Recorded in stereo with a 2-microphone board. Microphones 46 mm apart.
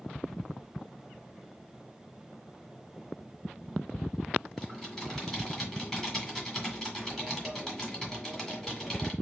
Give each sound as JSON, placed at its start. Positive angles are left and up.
{"t": 4.6, "sound": "typing on a keyboard", "side_deg": 10, "distance_m": 1.8}